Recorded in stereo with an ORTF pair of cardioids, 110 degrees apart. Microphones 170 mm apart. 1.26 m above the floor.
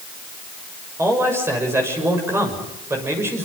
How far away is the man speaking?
About 6.5 m.